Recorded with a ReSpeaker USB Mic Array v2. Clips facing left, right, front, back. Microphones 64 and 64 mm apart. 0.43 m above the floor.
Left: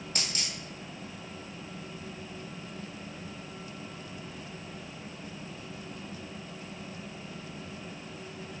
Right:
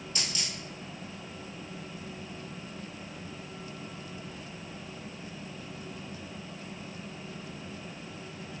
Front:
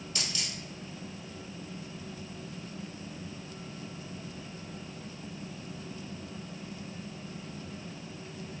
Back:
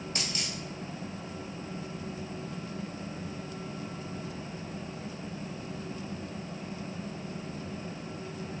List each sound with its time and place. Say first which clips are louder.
0.1 s a dropped coin: even, even; 135° left, 1.5 m